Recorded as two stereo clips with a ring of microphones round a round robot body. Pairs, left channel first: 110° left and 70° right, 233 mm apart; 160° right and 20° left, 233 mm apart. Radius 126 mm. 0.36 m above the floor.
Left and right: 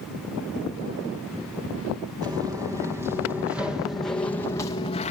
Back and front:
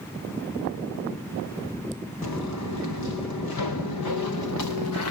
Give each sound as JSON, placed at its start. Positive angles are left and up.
{"t": 2.2, "sound": "footsteps", "azimuth_deg": -140, "distance_m": 5.0}